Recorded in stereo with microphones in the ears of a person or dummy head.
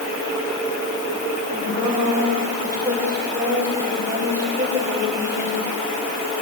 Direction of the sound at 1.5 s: 15° right (ahead or behind).